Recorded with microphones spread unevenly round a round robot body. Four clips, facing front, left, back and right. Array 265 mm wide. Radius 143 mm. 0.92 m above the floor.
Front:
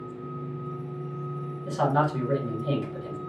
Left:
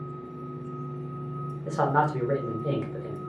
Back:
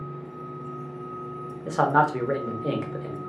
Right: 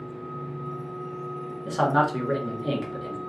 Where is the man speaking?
165° right, 1.2 m.